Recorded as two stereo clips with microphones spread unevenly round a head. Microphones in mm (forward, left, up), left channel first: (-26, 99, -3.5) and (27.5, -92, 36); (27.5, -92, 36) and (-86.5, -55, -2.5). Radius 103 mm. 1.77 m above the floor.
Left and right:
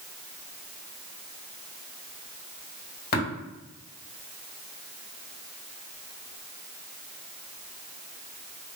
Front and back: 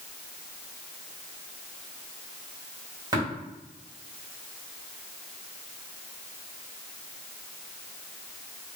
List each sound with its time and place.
3.1 s tapping: 80° left, 1.8 m